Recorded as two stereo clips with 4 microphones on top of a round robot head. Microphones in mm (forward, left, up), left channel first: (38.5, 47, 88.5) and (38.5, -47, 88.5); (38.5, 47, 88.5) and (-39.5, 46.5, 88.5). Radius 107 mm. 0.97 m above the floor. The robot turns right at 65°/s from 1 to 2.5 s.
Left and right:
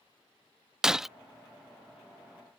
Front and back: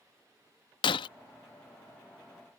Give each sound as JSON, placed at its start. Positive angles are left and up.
{"t": 0.8, "sound": "breaking glass", "azimuth_deg": -5}